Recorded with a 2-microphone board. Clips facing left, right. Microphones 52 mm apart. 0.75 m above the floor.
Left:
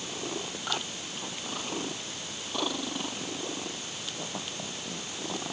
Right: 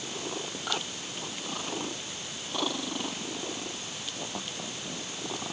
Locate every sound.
Only background noise.